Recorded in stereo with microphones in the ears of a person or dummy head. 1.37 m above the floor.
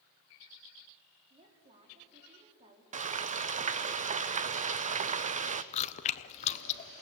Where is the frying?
35° right (ahead or behind), 0.6 m.